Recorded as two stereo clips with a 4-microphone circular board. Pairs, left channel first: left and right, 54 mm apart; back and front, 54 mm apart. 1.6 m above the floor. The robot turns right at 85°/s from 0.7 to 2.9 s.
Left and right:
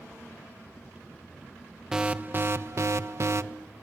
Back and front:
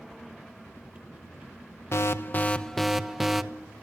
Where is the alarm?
170° right, 1.0 m; by 3.4 s 85° right, 1.0 m.